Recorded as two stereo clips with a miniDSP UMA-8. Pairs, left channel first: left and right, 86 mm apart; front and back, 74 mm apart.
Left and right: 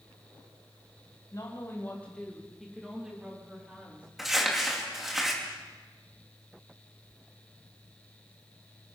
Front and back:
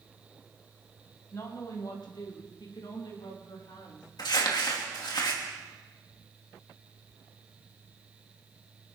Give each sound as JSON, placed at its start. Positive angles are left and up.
{"t": 1.3, "sound": "a woman speaking", "azimuth_deg": 45, "distance_m": 2.0}
{"t": 4.2, "sound": "crumpling", "azimuth_deg": 0, "distance_m": 2.5}